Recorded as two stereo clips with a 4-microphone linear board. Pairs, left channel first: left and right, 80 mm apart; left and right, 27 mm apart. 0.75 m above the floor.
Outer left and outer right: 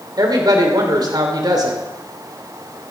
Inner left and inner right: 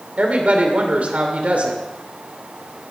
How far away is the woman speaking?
About 2.5 m.